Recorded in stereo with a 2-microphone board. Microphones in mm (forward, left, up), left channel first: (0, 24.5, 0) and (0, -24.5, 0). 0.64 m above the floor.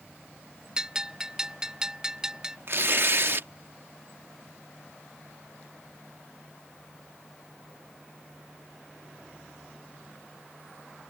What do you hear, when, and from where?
0.8 s a bell: 10° right (ahead or behind)
2.7 s tearing paper: 45° right (ahead or behind)